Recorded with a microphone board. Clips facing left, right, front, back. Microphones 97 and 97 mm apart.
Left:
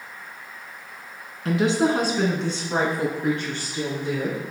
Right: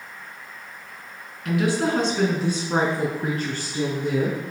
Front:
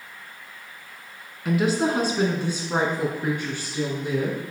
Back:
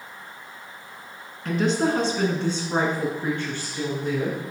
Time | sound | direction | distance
1.4 | a woman speaking | 75° left | 1.4 m